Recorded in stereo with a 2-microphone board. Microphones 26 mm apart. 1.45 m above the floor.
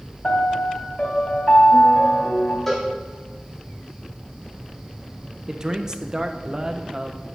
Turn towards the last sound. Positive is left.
turn(degrees=-20)  # may be behind; listen again after turning